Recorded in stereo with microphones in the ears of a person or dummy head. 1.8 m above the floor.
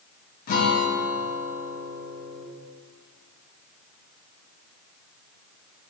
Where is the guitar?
45° left (ahead or behind), 1.0 m.